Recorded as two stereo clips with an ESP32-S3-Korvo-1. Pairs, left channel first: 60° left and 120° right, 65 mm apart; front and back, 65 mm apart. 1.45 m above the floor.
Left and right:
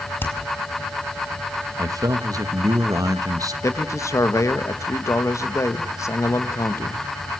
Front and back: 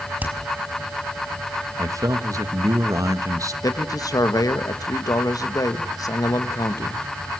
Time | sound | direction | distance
0.2 | hammering | 115° left | 4.5 m
1.8 | a man speaking | 145° right | 1.7 m
3.6 | a man speaking | 25° left | 1.6 m